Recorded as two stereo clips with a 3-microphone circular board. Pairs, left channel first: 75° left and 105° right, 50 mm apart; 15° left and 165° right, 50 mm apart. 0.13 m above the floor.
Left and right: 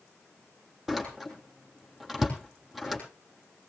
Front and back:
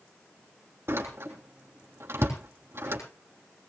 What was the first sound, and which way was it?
A door slam, 170° left.